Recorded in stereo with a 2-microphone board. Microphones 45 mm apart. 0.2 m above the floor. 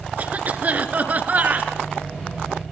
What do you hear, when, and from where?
0.2 s a cough: 40° right (ahead or behind), 2.5 m